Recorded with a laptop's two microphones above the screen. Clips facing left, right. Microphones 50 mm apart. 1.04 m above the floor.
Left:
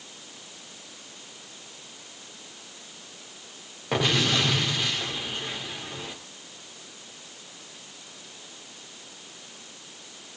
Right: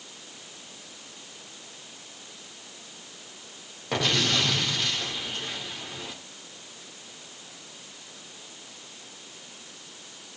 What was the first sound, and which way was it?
An explosion, 10° left (ahead or behind).